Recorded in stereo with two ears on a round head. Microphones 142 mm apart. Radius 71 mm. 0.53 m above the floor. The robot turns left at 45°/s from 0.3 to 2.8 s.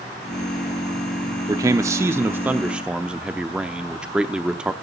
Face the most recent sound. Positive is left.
turn(degrees=-5)  # may be behind; listen again after turning